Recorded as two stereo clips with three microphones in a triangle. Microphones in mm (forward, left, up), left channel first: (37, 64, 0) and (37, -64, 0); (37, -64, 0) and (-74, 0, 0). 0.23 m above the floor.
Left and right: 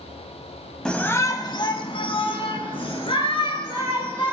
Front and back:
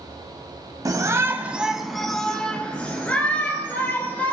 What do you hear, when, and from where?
0.8 s a shout: 165° left, 1.0 m; by 4.3 s 45° left, 4.5 m